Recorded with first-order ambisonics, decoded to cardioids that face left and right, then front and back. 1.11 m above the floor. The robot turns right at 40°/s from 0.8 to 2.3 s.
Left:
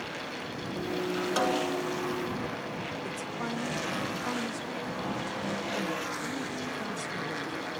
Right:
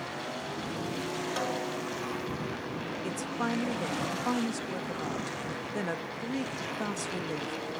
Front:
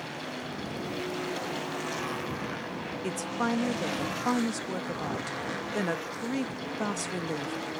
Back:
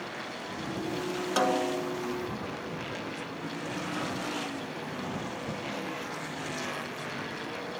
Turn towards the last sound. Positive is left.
turn(degrees=-20)